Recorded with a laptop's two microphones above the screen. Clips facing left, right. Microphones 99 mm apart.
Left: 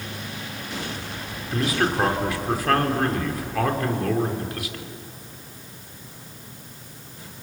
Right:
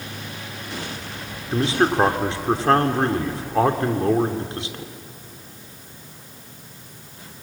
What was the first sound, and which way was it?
A man speaking, 30° right (ahead or behind).